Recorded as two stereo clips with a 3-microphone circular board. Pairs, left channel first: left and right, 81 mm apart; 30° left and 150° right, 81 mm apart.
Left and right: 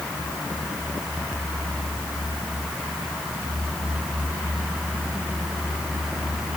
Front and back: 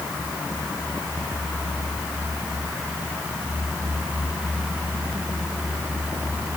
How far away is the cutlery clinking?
No cutlery clinking in this recording.